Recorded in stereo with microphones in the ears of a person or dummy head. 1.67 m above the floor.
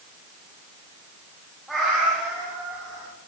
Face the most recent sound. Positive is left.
turn(degrees=-20)  # may be behind; listen again after turning